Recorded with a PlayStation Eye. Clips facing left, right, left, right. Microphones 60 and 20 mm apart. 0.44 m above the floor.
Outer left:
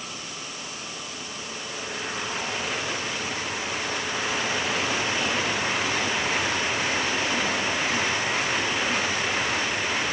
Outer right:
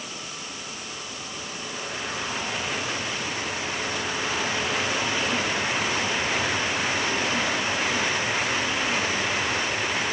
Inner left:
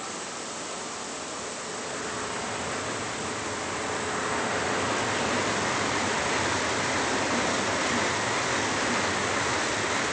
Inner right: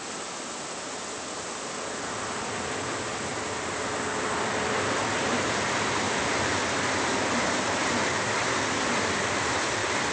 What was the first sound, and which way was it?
Only background noise.